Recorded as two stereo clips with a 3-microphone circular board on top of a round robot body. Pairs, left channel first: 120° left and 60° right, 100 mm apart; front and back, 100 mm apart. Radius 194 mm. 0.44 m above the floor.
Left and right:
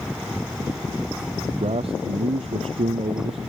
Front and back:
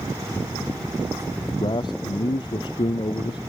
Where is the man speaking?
40° right.